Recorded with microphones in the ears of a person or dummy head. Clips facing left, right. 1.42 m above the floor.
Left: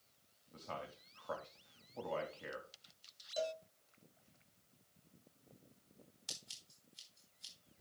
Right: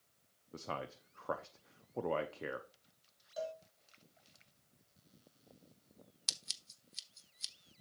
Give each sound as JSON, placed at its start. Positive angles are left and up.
{"t": 0.5, "sound": "a man speaking", "side_deg": -60, "distance_m": 0.6}
{"t": 3.4, "sound": "a cowbell", "side_deg": 40, "distance_m": 1.2}
{"t": 6.3, "sound": "scissors", "side_deg": -75, "distance_m": 1.0}